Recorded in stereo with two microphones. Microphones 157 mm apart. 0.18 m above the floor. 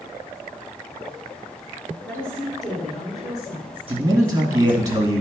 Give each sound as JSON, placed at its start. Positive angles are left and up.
{"t": 2.0, "sound": "a woman speaking", "side_deg": 10, "distance_m": 2.5}
{"t": 3.9, "sound": "a man speaking", "side_deg": -25, "distance_m": 2.0}